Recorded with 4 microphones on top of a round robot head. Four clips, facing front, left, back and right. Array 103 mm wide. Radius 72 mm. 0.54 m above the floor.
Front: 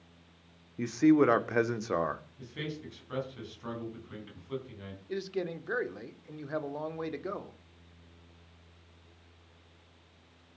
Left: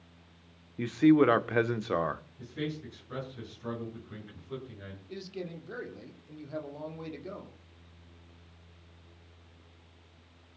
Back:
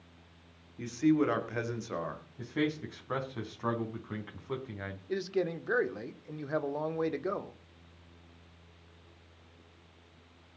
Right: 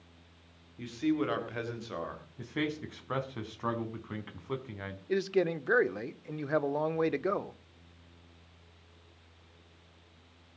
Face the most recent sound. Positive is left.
turn(degrees=-105)